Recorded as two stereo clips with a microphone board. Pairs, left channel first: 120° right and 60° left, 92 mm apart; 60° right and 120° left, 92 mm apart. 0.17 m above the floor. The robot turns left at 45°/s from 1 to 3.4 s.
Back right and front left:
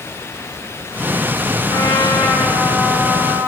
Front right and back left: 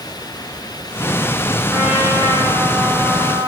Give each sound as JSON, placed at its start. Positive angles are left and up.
{"t": 1.7, "sound": "a trumpet", "azimuth_deg": -170, "distance_m": 4.0}